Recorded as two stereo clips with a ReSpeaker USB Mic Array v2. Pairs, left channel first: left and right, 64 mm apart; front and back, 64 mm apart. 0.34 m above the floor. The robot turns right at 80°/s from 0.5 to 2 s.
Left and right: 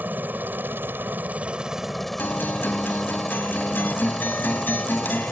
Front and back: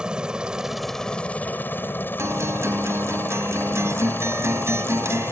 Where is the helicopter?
115° right; by 5.3 s 5° left.